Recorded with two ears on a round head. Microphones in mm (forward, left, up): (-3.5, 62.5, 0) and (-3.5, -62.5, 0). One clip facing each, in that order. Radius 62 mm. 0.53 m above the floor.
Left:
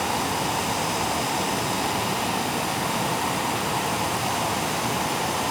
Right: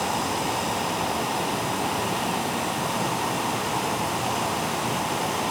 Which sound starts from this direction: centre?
Running water, at 0.0 s.